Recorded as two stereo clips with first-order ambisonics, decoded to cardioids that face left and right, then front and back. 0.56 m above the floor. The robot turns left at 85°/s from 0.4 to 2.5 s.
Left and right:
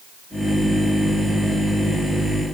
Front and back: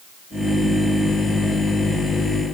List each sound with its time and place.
Only background noise.